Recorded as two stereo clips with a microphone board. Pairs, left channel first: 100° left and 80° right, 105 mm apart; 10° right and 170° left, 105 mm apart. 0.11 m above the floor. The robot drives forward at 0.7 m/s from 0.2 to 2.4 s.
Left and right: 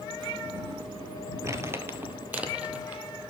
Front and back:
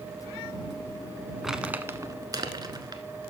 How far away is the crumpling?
About 0.8 m.